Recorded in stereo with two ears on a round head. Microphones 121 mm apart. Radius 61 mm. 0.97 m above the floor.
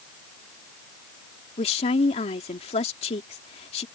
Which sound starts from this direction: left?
A woman speaking, at 1.6 s.